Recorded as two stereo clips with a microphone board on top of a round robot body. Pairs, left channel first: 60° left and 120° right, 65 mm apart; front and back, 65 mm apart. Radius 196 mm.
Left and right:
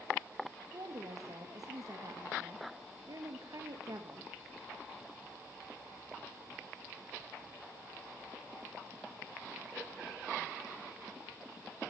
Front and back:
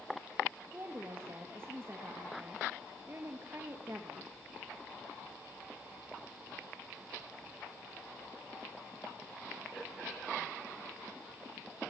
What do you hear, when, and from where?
0.7 s a woman speaking: 135° right, 1.6 m